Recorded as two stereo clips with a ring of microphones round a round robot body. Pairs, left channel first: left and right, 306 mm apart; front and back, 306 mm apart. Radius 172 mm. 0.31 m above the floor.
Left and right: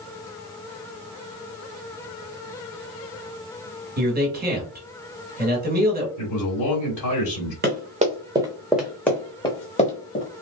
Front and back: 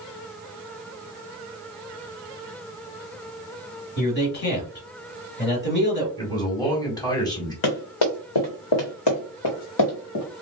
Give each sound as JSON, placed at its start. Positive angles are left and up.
{"t": 4.0, "sound": "a man speaking", "azimuth_deg": -40, "distance_m": 1.5}
{"t": 6.2, "sound": "a man speaking", "azimuth_deg": 80, "distance_m": 1.8}
{"t": 7.6, "sound": "running footsteps", "azimuth_deg": -30, "distance_m": 1.4}